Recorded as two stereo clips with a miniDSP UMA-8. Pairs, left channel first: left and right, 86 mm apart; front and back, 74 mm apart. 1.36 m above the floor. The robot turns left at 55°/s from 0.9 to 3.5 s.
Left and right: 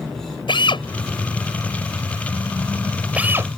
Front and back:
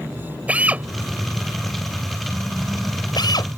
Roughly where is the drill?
Left.